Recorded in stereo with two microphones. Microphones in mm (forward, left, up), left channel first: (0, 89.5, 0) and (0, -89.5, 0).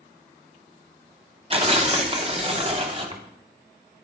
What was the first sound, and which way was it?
Tearing paper, 35° right (ahead or behind).